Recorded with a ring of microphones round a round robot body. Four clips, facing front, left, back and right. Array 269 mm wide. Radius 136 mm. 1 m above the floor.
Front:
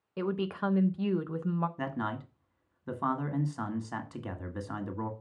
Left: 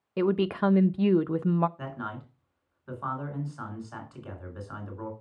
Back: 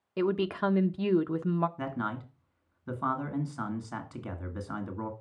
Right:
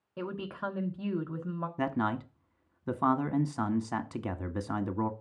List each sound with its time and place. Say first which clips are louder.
0.2 s a woman speaking: left 12 dB, back 4 dB; 95° left, 0.7 m
1.8 s a man speaking: right 7 dB, even; 90° right, 1.4 m